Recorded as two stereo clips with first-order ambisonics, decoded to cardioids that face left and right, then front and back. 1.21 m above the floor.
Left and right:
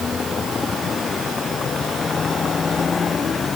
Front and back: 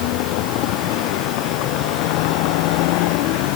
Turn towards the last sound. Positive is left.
turn(degrees=20)